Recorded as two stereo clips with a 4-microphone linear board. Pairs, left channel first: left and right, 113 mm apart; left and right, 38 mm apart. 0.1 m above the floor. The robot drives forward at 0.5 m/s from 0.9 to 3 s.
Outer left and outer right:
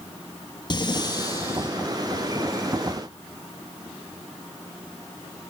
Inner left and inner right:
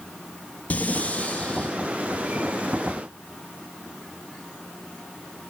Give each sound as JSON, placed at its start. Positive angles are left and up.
{"t": 0.7, "sound": "breathing", "side_deg": 40, "distance_m": 0.8}